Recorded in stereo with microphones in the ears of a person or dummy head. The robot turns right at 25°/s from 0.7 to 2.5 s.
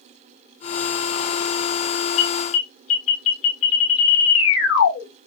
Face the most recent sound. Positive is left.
turn(degrees=75)  # may be behind; listen again after turning